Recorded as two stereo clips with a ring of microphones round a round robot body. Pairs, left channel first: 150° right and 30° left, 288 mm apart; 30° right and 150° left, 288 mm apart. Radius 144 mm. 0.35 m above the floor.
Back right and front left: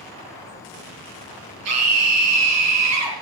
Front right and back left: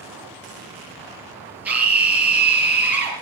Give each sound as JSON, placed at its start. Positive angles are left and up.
{"t": 1.6, "sound": "a scream", "azimuth_deg": 65, "distance_m": 6.5}